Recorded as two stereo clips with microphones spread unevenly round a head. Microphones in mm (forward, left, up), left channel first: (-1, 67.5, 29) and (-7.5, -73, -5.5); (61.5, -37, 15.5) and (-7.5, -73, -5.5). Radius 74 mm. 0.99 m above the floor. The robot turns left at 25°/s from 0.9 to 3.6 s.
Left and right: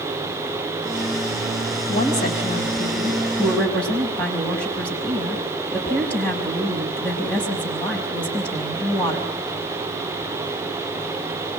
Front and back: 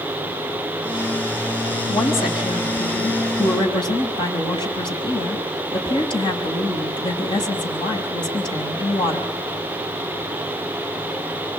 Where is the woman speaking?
50° left, 6 m; by 9.3 s 5° left, 6 m.